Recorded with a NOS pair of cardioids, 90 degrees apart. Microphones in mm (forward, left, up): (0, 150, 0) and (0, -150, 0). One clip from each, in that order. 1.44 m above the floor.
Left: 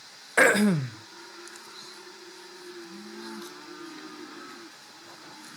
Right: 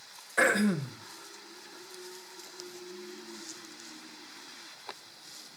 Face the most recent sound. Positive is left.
turn(degrees=55)